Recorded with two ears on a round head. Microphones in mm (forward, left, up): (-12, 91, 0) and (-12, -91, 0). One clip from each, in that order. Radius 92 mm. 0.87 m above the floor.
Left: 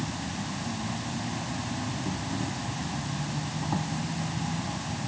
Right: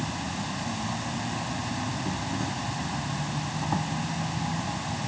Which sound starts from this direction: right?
An insect, at 0.0 s.